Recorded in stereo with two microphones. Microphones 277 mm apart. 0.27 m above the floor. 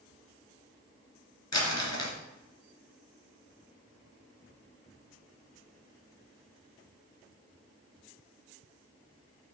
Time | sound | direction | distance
1.5 | crumpling | 70° left (ahead or behind) | 2.5 m